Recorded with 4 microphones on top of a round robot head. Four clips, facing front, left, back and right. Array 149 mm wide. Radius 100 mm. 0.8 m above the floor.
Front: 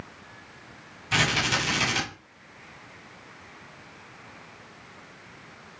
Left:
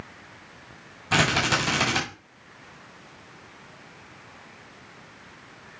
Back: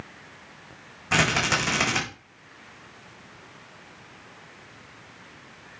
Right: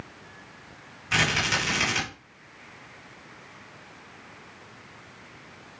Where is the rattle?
145° left, 5 m.